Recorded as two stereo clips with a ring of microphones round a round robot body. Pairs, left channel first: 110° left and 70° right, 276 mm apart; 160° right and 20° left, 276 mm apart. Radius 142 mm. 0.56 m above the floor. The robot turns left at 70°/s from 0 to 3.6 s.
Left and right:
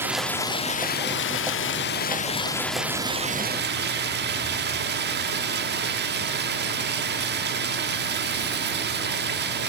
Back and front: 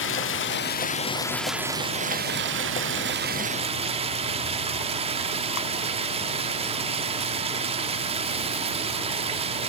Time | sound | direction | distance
0.0 | running water | 145° right | 1.2 m